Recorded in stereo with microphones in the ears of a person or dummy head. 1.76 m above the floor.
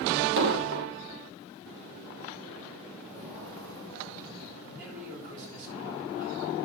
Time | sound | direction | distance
0.4 | an explosion | 55° right (ahead or behind) | 1.0 m
3.0 | footsteps | 70° right (ahead or behind) | 7 m
4.6 | a man speaking | 45° right (ahead or behind) | 7.5 m